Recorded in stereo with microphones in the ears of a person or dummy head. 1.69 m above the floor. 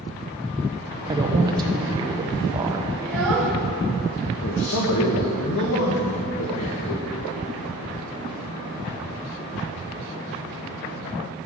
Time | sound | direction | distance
1.1 | a woman speaking | 25° right (ahead or behind) | 1.1 m
3.0 | a child speaking | 5° right (ahead or behind) | 2.5 m
4.4 | a man speaking | 65° left (ahead or behind) | 1.4 m